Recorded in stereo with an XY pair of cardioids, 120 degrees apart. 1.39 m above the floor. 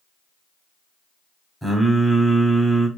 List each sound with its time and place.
1.6 s singing: straight ahead, 0.7 m